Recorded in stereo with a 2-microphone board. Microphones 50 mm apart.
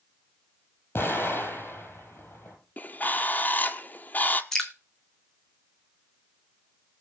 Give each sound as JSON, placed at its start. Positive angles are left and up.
{"t": 0.9, "sound": "an explosion", "side_deg": 45, "distance_m": 4.5}
{"t": 2.8, "sound": "a bird", "side_deg": 35, "distance_m": 1.0}
{"t": 4.5, "sound": "dripping", "side_deg": 10, "distance_m": 1.6}